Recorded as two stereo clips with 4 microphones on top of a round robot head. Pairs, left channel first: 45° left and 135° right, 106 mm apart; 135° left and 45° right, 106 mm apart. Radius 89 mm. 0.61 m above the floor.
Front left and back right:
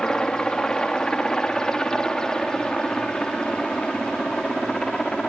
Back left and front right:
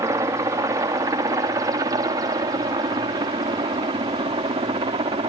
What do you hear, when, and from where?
0.0 s a helicopter: 30° right; by 5.3 s 35° right